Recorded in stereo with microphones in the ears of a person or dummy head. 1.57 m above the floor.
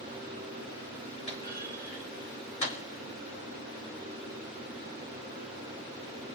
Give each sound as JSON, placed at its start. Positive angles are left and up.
{"t": 1.3, "sound": "a clunk", "side_deg": 35, "distance_m": 3.0}